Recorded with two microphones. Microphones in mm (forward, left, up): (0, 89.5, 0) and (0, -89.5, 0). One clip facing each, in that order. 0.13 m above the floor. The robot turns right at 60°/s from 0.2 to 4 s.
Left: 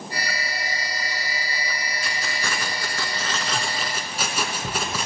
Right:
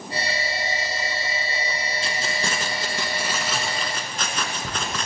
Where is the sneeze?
I don't hear a sneeze.